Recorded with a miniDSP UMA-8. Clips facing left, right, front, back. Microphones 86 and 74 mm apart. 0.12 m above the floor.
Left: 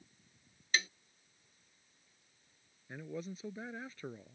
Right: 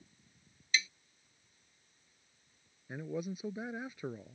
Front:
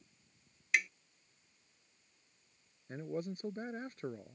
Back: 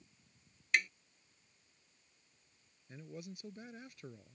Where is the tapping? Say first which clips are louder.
Even, even; 85° left.